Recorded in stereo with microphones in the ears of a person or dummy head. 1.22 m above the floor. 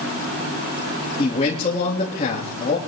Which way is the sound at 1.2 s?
40° left (ahead or behind).